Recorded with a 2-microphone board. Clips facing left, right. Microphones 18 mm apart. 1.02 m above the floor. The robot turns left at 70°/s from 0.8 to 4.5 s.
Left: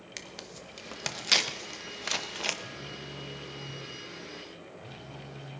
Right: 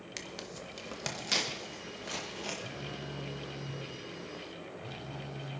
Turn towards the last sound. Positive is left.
turn(degrees=-175)